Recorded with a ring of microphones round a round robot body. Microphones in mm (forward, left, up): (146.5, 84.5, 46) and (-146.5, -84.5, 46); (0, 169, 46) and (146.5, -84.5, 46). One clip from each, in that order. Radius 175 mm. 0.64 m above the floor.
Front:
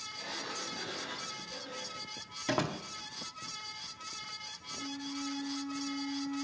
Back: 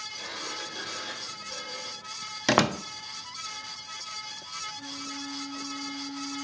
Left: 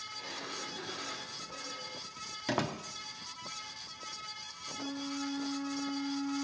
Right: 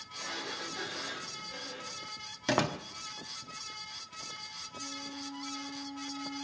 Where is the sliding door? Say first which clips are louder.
Back 2 dB, right 6 dB; 140° right, 3.5 m.